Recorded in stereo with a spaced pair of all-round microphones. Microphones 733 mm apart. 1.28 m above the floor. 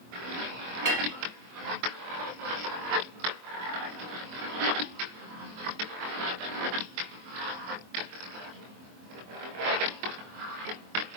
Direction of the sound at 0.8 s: 25° right (ahead or behind).